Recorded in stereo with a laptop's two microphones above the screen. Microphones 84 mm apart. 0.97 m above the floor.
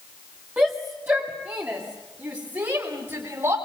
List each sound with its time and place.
0.6 s a shout: 20° right (ahead or behind), 2 m; by 3.5 s 35° right (ahead or behind), 4.5 m